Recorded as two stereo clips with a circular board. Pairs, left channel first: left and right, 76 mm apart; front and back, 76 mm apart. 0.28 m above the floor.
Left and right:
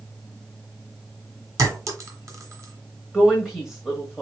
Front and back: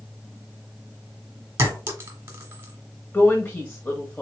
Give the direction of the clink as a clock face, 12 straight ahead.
4 o'clock.